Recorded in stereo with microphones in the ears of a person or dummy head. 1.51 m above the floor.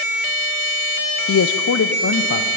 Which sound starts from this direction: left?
A man speaking, at 1.3 s.